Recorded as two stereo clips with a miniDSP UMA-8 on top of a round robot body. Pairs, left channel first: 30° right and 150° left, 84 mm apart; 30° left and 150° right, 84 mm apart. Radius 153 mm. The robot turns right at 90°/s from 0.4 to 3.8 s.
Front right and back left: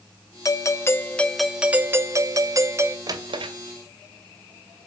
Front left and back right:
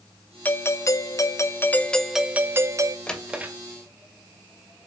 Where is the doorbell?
30° right, 1.6 m; by 3.0 s 160° right, 1.6 m.